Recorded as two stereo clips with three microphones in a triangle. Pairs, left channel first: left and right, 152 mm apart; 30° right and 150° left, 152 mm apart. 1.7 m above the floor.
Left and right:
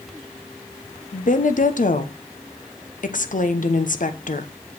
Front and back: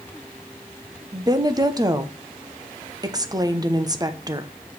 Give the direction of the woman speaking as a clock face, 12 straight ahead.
9 o'clock.